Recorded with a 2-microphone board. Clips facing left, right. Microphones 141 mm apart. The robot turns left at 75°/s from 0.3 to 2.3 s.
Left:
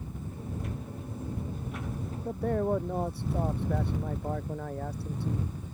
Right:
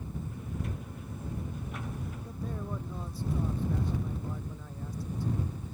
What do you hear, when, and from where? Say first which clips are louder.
2.2 s a man speaking: left 14 dB; 75° left (ahead or behind)